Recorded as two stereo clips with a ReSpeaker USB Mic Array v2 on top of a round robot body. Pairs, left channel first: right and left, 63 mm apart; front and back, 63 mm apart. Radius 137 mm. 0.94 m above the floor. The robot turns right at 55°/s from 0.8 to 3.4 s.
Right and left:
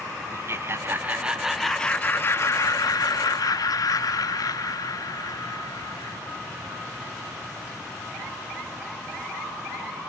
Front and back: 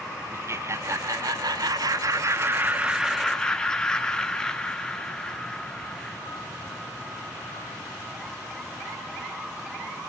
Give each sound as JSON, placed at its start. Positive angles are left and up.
{"t": 0.3, "sound": "laughter", "azimuth_deg": 140, "distance_m": 0.7}